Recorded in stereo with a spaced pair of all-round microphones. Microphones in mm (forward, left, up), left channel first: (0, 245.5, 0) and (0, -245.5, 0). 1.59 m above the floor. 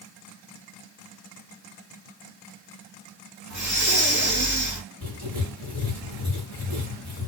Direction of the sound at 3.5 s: 30° right (ahead or behind).